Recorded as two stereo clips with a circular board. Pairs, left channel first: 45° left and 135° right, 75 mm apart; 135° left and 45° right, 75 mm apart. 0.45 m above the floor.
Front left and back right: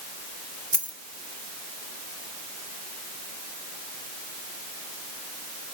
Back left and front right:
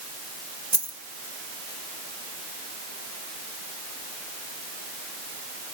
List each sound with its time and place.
0.7 s a dropped coin: 115° left, 1.1 m